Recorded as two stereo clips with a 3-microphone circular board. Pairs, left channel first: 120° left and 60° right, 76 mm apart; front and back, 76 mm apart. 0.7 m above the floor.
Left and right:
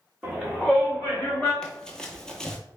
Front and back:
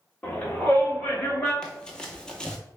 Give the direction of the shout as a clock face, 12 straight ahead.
12 o'clock.